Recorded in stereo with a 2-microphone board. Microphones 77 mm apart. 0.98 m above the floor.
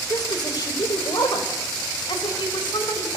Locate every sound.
0.1 s a woman speaking: 55° left (ahead or behind), 4.5 m; by 3.2 s 75° left (ahead or behind), 5.5 m